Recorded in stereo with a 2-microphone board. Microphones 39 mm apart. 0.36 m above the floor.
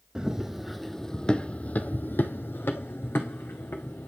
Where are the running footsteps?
20° right (ahead or behind), 0.9 m; by 4.1 s 80° left, 1.5 m.